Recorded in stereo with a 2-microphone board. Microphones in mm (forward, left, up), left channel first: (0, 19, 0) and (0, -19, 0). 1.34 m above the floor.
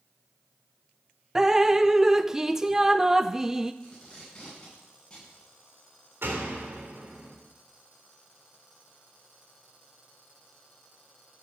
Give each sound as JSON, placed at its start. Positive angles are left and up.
{"t": 1.4, "sound": "dripping", "side_deg": -15, "distance_m": 0.5}
{"t": 3.8, "sound": "tape being pulled", "side_deg": 20, "distance_m": 9.0}
{"t": 6.2, "sound": "a door slam", "side_deg": -80, "distance_m": 3.0}